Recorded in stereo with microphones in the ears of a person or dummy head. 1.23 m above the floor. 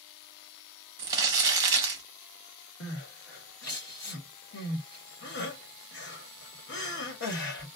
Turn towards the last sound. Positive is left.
turn(degrees=60)  # may be behind; listen again after turning